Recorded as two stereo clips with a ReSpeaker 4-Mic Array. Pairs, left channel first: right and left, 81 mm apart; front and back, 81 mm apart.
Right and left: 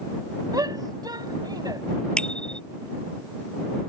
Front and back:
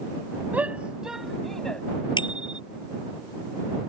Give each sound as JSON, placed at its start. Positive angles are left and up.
{"t": 0.5, "sound": "a shout", "azimuth_deg": 115}
{"t": 2.2, "sound": "a bicycle bell", "azimuth_deg": -10}